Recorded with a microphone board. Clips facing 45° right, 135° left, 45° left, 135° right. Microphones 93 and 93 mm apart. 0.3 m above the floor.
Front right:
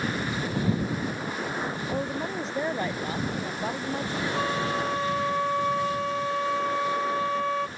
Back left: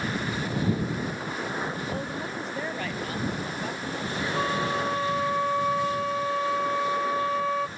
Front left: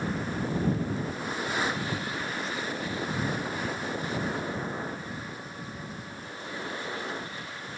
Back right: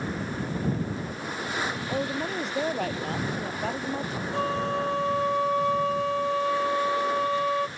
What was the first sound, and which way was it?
A woman speaking, 115° right.